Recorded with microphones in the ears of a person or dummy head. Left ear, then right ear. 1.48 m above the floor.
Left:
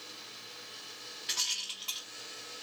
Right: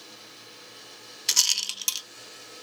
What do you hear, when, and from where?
1.3 s a rattle: 80° right, 0.6 m